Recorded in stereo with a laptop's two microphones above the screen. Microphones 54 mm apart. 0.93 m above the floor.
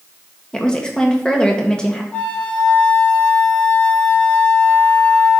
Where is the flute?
30° left (ahead or behind), 0.9 m.